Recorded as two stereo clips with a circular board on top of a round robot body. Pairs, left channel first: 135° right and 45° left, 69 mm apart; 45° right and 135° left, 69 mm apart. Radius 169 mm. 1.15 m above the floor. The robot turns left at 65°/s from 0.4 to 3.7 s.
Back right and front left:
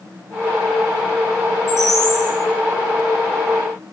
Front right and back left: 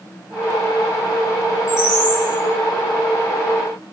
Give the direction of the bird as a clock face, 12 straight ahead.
3 o'clock.